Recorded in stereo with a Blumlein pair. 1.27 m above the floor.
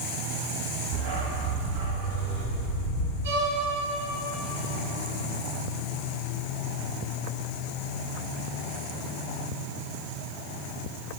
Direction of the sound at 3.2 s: 65° right.